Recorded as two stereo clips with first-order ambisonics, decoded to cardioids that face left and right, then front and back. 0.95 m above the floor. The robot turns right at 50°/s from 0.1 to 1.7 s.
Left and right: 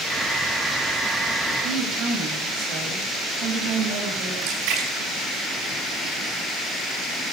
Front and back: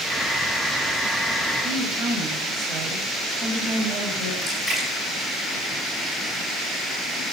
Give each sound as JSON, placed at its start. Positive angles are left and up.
{"t": 1.6, "sound": "a woman speaking", "azimuth_deg": -130, "distance_m": 6.0}
{"t": 4.4, "sound": "a splash", "azimuth_deg": -90, "distance_m": 7.0}